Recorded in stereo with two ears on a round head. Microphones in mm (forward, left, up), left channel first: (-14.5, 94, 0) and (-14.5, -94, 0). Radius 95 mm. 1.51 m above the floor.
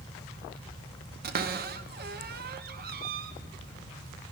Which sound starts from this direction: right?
A cupboard door, at 1.2 s.